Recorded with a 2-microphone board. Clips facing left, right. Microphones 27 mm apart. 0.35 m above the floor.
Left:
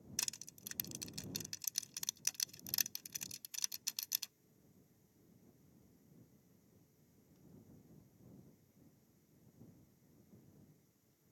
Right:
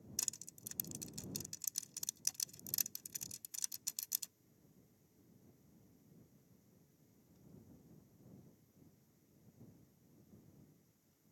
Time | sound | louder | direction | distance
0.2 | crushing | left 2 dB | 30° left (ahead or behind) | ?